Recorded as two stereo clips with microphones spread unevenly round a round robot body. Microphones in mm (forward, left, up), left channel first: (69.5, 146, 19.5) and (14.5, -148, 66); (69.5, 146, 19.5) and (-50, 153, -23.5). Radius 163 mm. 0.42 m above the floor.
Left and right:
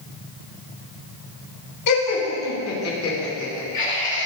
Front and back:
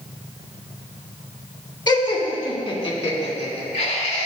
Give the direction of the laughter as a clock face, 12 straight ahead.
10 o'clock.